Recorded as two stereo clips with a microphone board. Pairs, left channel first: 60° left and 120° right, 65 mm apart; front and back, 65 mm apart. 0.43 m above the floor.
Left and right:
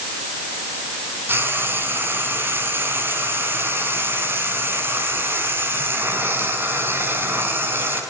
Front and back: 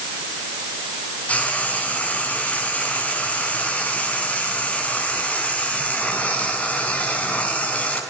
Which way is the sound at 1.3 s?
65° right.